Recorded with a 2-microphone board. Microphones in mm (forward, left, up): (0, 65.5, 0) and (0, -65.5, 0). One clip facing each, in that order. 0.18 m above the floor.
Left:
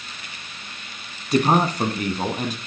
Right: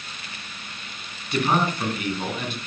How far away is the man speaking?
About 1.7 m.